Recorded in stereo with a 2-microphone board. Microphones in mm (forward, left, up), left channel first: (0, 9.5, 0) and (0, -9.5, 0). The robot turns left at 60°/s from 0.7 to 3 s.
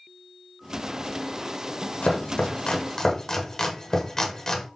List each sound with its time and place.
2.0 s chopping: 85° left, 0.8 m; by 4.7 s 30° left (ahead or behind), 0.8 m